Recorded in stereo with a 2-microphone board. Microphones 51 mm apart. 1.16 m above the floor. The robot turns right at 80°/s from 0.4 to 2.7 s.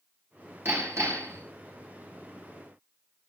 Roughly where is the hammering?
Behind right.